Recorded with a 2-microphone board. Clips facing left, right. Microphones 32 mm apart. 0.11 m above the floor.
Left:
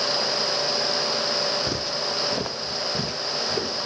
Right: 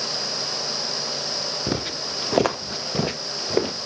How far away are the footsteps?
About 0.8 m.